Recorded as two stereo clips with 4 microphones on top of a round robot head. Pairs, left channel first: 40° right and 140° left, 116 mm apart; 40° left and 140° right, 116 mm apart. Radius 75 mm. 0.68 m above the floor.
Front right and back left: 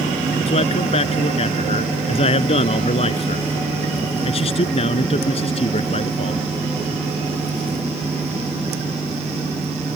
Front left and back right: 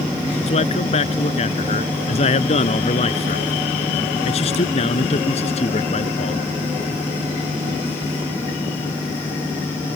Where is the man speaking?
Straight ahead.